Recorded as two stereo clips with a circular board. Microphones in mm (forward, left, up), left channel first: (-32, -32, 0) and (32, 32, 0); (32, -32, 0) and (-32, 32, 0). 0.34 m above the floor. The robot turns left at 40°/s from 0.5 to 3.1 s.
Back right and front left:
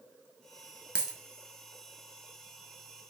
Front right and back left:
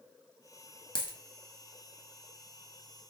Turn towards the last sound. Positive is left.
turn(degrees=-120)